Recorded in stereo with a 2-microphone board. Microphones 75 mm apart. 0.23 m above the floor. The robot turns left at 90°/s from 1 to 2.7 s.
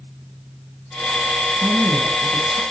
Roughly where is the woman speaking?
Ahead.